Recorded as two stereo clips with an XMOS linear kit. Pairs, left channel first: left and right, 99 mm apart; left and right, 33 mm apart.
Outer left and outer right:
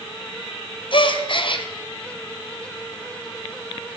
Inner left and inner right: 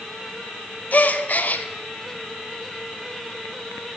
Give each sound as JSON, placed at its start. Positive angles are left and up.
{"t": 0.9, "sound": "a gasp", "side_deg": 50, "distance_m": 0.6}